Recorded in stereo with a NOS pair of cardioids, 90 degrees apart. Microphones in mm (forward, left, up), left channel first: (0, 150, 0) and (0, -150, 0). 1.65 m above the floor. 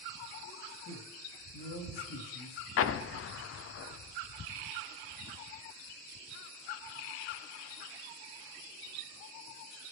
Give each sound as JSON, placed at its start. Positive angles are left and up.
{"t": 0.8, "sound": "a man speaking", "azimuth_deg": 60, "distance_m": 4.0}
{"t": 2.8, "sound": "an explosion", "azimuth_deg": 50, "distance_m": 0.6}